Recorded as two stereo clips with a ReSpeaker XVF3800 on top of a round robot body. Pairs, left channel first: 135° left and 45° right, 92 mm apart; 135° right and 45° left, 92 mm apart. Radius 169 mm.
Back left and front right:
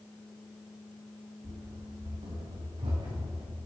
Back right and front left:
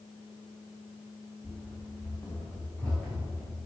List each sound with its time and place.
1.4 s running footsteps: 55° right, 2 m; by 3.6 s 65° right, 4.5 m